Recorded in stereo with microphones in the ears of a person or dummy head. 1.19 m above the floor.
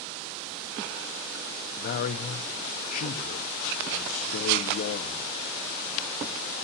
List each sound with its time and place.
1.8 s a man speaking: 45° left (ahead or behind), 1.1 m